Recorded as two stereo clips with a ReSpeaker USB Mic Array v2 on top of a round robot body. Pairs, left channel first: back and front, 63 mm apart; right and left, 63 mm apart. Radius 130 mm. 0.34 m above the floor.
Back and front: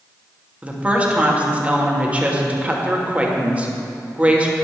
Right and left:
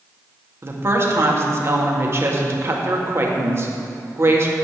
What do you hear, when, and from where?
0.6 s a woman speaking: 65° left, 1.7 m